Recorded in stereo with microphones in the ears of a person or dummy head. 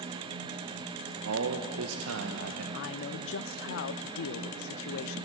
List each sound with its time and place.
1.2 s a man speaking: 85° right, 1.3 m
2.7 s a man speaking: 60° left (ahead or behind), 0.9 m